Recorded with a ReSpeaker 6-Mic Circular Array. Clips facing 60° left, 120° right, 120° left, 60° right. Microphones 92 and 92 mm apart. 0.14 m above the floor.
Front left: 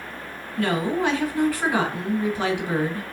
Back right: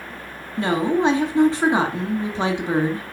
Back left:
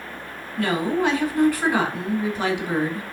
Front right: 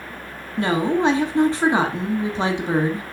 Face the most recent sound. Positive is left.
turn(degrees=-90)